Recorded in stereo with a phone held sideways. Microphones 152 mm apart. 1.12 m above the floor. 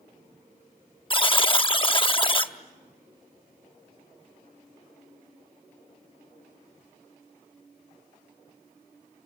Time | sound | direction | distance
1.1 | a buzzer | 35° left (ahead or behind) | 0.8 m